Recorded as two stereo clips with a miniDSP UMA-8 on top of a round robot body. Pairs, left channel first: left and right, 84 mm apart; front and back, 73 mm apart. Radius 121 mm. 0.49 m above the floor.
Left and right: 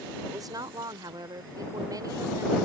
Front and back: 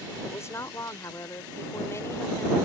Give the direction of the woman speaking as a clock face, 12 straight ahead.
2 o'clock.